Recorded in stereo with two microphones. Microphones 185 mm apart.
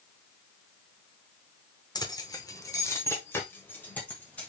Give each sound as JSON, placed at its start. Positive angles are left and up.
{"t": 1.9, "sound": "keys jangling", "side_deg": 20, "distance_m": 0.6}